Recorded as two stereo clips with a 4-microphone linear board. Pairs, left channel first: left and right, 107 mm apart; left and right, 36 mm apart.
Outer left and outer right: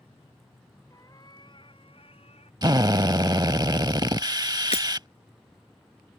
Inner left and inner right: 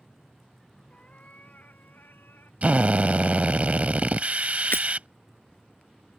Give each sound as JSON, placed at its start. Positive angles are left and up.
{"t": 0.9, "sound": "a cat meowing", "side_deg": 30}
{"t": 2.6, "sound": "a drill", "side_deg": -40}
{"t": 4.7, "sound": "breaking glass", "side_deg": 70}